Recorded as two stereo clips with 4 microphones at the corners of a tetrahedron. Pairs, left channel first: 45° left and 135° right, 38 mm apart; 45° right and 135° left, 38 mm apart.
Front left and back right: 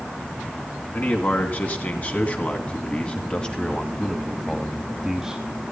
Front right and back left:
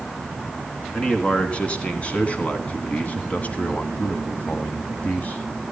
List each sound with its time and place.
0.9 s a man speaking: 15° left, 3 m; by 5.4 s 65° right, 1.8 m